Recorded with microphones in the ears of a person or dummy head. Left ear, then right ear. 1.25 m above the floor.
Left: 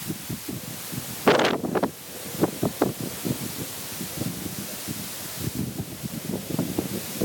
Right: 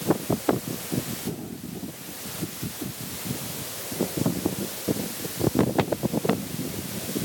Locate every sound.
Only background noise.